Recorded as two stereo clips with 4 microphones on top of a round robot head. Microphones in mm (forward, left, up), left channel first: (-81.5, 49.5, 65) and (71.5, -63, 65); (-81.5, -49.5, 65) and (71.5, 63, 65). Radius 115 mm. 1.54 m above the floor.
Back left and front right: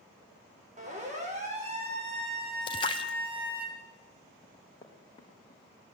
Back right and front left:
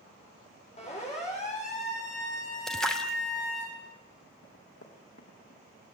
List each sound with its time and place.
0.8 s a siren: 85° right, 8 m; by 3.7 s 100° right, 6.5 m
2.7 s a splash: 135° left, 0.6 m
4.4 s running footsteps: 150° right, 6 m; by 5.6 s 155° right, 6.5 m